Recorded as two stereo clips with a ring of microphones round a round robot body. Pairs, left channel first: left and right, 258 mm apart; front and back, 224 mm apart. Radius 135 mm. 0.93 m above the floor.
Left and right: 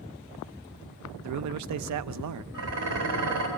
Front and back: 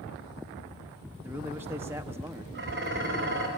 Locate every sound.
1.2 s a man speaking: 100° right, 0.6 m
2.5 s dishes clattering: 125° right, 3 m